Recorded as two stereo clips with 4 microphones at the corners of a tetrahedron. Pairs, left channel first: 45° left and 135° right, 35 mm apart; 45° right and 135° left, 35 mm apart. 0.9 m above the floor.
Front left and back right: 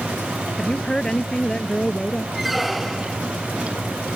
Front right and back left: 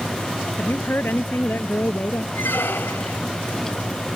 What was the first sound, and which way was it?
A woman speaking, 25° right.